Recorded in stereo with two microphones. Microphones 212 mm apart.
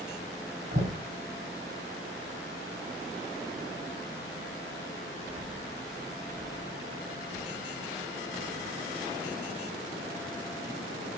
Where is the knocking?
50° right (ahead or behind), 1.7 m.